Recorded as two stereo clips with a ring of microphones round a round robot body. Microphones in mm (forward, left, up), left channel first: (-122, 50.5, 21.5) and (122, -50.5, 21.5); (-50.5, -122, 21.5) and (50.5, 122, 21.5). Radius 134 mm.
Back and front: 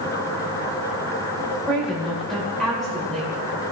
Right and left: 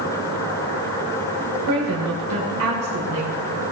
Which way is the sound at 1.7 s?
70° left.